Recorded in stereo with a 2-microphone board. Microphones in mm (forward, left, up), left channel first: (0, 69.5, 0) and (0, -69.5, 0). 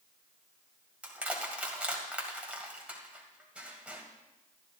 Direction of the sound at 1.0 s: 10° right (ahead or behind).